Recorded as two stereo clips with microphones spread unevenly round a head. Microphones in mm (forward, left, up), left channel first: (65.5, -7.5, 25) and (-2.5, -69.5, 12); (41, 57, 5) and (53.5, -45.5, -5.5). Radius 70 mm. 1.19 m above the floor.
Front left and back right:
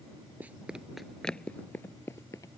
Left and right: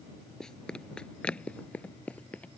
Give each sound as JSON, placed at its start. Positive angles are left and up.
{"t": 0.4, "sound": "running footsteps", "azimuth_deg": 155}